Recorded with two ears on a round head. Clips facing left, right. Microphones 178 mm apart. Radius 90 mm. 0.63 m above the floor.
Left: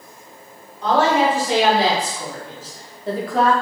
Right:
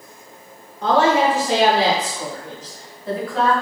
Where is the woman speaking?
45° right (ahead or behind), 1.5 m; by 3.5 s 40° left (ahead or behind), 1.1 m.